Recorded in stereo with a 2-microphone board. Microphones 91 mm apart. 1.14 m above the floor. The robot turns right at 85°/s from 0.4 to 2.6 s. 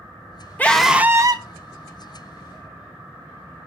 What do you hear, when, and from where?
0.6 s a scream: 160° left, 1.1 m; by 1.4 s 125° right, 1.1 m